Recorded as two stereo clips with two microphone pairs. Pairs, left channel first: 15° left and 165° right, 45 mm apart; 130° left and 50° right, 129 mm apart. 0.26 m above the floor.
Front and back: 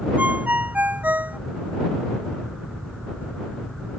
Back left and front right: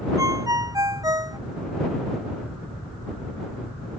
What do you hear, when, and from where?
0.2 s a ringtone: 115° right